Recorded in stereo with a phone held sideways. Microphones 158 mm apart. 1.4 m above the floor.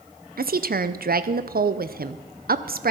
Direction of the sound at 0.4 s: 70° right (ahead or behind).